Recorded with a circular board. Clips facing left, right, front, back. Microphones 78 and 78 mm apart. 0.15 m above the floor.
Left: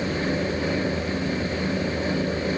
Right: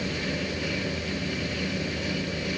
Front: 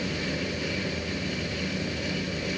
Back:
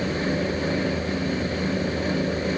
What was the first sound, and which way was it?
Only background noise.